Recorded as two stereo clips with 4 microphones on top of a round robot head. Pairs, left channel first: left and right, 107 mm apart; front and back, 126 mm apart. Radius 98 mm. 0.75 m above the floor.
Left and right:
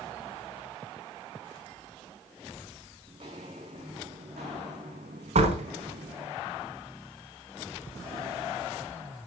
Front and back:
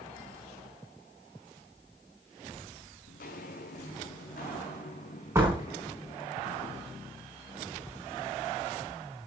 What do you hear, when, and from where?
3.1 s footsteps: 30° right, 3 m; by 6.3 s 65° right, 3 m
5.3 s a door slam: 105° right, 4.5 m